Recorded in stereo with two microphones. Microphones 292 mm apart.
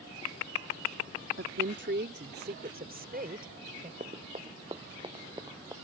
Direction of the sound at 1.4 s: 45° right (ahead or behind).